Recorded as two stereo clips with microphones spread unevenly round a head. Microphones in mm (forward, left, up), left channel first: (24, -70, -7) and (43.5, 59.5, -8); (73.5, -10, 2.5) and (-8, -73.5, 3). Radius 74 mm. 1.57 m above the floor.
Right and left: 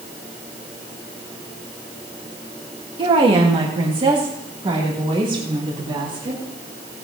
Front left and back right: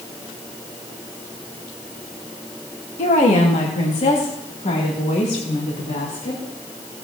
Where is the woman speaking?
30° left, 1.7 m.